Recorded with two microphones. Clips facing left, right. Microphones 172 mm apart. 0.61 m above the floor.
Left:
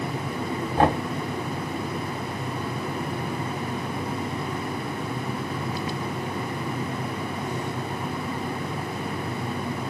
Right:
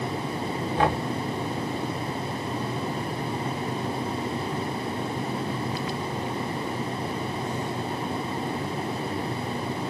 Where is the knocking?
45° left (ahead or behind), 2.5 m.